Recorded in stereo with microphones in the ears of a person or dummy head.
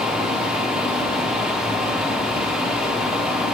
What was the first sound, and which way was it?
A fan, 5° right (ahead or behind).